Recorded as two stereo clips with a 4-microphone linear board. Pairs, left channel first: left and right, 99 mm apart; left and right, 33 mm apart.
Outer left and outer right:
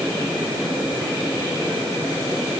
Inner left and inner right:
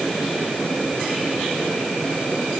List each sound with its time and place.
Only background noise.